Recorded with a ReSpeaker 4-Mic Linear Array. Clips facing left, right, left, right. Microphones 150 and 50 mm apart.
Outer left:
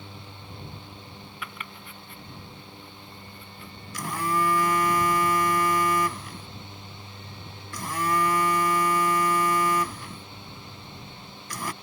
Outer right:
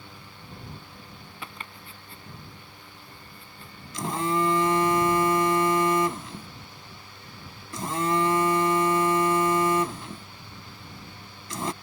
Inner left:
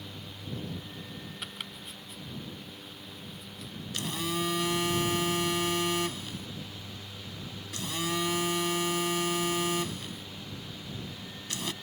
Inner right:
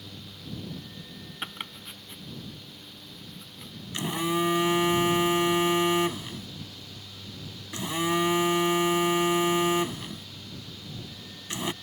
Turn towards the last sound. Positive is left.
turn(degrees=-25)  # may be behind; listen again after turning